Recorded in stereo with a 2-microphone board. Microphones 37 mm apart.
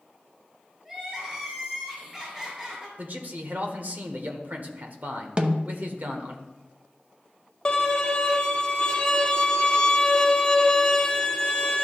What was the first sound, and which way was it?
Crying, 20° right (ahead or behind).